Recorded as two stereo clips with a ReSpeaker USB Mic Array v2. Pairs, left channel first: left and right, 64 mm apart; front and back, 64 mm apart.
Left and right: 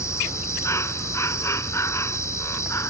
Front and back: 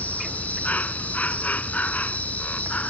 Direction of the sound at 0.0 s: 60° left.